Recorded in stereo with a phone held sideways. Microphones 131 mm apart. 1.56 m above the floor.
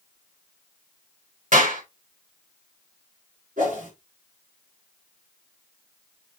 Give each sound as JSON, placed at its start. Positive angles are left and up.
{"t": 1.5, "sound": "a clap", "side_deg": -80, "distance_m": 5.0}
{"t": 3.6, "sound": "a whoosh", "side_deg": -85, "distance_m": 4.0}